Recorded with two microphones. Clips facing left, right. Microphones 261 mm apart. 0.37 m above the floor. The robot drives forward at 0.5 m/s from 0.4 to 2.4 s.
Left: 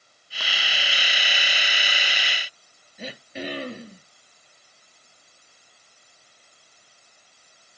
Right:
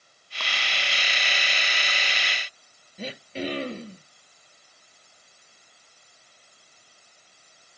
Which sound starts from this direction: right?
Throat clearing, at 3.0 s.